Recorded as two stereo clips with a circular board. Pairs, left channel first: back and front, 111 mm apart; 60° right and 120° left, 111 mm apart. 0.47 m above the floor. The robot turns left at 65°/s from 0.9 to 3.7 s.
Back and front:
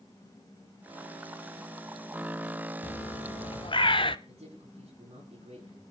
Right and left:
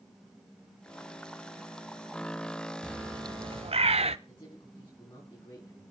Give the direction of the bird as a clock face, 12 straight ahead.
5 o'clock.